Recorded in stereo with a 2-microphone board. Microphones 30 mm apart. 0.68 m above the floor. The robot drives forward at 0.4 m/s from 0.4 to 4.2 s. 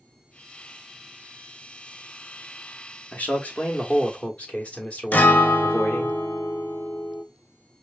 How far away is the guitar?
About 0.7 m.